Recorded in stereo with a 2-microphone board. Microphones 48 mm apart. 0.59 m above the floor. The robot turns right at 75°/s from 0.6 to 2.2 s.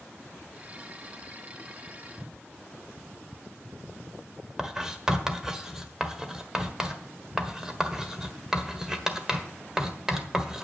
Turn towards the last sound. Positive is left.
turn(degrees=-10)  # may be behind; listen again after turning